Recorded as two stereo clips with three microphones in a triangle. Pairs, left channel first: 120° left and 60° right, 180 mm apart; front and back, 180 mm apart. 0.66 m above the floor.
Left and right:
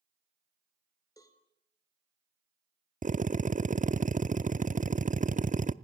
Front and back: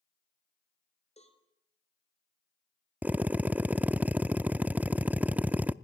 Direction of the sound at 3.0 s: 100° right.